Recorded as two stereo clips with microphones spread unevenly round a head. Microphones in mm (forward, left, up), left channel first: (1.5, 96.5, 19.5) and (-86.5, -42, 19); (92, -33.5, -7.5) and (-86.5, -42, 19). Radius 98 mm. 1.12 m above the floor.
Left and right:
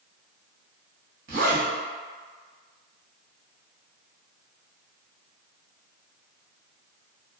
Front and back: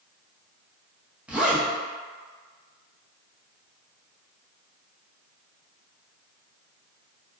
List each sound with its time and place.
1.3 s a zipper: 90° right, 0.8 m